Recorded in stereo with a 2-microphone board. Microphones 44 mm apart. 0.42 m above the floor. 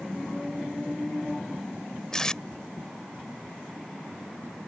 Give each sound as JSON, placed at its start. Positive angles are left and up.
{"t": 2.1, "sound": "tape being pulled", "side_deg": 15}